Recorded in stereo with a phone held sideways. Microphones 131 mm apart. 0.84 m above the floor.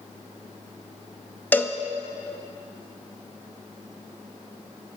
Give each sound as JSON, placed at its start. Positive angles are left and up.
{"t": 1.5, "sound": "a cowbell", "side_deg": 15, "distance_m": 0.9}